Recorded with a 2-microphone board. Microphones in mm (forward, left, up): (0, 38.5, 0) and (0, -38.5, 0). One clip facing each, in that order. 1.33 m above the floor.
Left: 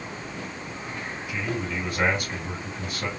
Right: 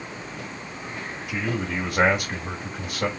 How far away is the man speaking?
About 2.5 m.